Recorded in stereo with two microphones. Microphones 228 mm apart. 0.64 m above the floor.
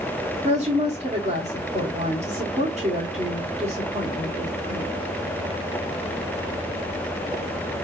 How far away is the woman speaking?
About 1.8 m.